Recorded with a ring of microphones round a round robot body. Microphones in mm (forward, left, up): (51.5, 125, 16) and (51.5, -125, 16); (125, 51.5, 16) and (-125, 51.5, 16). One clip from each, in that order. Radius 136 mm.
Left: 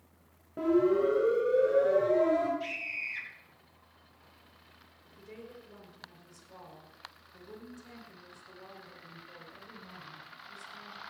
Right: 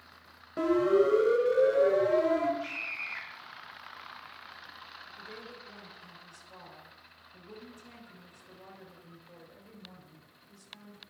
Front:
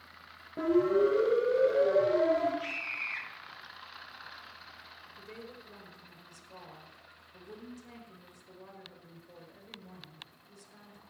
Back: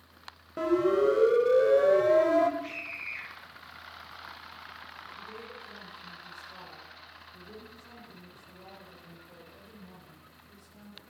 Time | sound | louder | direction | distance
0.6 | a siren | right 1 dB, back 1 dB | 130° right | 2.5 m
2.6 | a scream | even, front 2 dB | 25° left | 10 m
5.2 | a woman speaking | left 1 dB, back 4 dB | straight ahead | 5.5 m